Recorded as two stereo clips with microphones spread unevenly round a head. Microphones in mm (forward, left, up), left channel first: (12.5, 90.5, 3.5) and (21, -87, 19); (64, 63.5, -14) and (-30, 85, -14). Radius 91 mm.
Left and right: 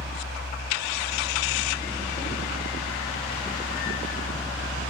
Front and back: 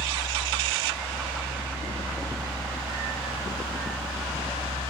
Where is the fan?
175° right, 5 m.